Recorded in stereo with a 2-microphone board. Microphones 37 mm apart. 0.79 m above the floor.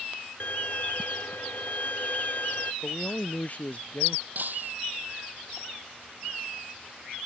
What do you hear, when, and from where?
0.4 s a violin: 50° left (ahead or behind)
2.8 s a man speaking: 40° left (ahead or behind)
4.3 s breaking glass: 50° right (ahead or behind)